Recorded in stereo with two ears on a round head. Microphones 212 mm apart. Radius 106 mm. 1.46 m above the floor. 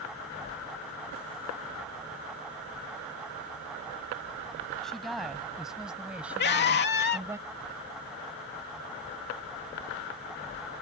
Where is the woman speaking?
Centre (ahead or behind); by 7.4 s 10° right (ahead or behind).